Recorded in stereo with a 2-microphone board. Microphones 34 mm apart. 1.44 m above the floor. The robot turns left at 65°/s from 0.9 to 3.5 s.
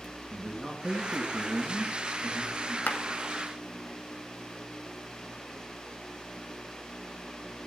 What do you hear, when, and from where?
0.3 s a man speaking: 20° right, 1.9 m; by 2.8 s 140° right, 1.9 m
2.9 s a clap: 70° left (ahead or behind), 1.6 m; by 3.0 s 75° left (ahead or behind), 1.6 m